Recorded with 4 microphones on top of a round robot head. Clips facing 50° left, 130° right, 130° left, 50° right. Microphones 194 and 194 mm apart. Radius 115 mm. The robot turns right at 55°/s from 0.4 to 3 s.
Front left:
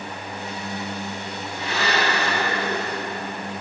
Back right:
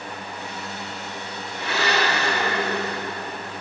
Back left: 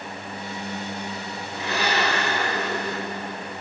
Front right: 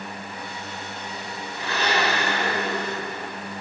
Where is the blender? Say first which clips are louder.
Back right 1 dB, even; 170° right, 1.4 m; by 3.2 s 85° right, 1.4 m.